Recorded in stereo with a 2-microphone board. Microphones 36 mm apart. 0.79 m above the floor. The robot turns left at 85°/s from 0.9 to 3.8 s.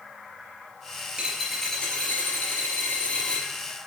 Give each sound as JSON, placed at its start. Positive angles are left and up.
{"t": 1.2, "sound": "a dropped coin", "azimuth_deg": -145, "distance_m": 3.5}